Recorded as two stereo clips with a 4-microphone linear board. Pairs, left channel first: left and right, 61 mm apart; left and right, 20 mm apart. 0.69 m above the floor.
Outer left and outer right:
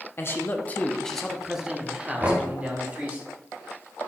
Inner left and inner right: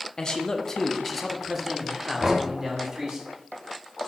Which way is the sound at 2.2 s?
35° right (ahead or behind).